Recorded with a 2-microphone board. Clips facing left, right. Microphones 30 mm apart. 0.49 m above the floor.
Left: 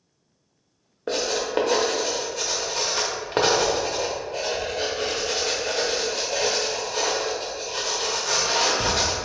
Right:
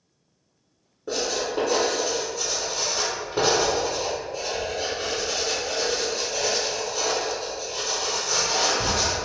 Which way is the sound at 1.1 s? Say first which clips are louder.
Left 1 dB; 65° left (ahead or behind).